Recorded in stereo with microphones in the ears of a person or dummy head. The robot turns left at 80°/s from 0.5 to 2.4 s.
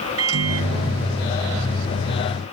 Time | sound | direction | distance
0.2 | a microwave | 105° right | ?